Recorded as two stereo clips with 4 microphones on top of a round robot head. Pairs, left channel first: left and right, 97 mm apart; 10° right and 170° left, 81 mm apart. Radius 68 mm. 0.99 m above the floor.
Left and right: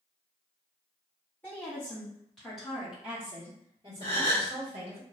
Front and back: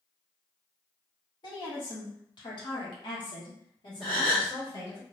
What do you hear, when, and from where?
1.4 s a woman speaking: 20° left, 1.9 m; by 5.0 s 60° right, 1.6 m
4.0 s a gasp: 80° right, 1.0 m